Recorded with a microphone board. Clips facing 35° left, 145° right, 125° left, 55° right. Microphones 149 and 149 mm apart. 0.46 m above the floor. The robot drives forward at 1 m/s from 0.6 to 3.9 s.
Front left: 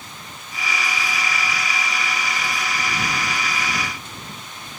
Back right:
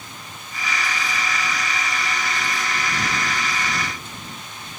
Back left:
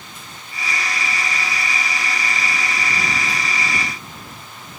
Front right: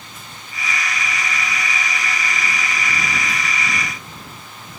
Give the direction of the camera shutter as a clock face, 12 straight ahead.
No camera shutter in this recording.